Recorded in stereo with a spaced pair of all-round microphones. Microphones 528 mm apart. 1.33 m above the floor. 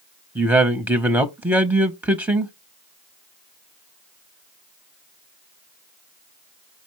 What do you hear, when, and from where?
0.3 s a man speaking: 5° right (ahead or behind), 0.6 m